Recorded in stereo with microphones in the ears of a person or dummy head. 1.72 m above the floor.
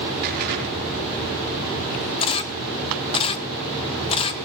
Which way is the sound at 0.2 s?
55° right (ahead or behind).